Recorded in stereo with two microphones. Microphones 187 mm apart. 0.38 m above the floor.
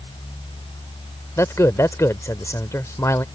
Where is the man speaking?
15° left (ahead or behind).